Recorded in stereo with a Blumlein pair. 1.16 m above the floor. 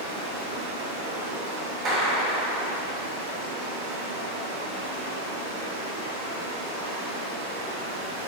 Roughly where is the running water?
Ahead right.